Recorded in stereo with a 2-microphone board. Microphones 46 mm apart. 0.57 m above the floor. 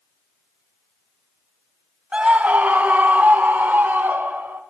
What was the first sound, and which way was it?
A scream, 20° right (ahead or behind).